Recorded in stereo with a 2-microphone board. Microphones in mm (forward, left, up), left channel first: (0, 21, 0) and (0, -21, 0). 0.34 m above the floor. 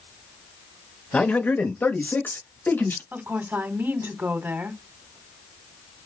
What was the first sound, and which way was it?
A man speaking, 30° left (ahead or behind).